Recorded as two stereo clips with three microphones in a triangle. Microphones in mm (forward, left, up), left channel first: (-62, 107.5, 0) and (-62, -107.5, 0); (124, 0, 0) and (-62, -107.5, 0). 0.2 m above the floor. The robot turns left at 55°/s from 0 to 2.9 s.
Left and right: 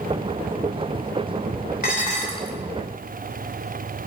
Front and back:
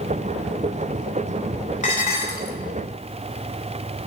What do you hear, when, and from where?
1.8 s dishes clattering: 65° left, 0.9 m; by 2.6 s 25° left, 0.9 m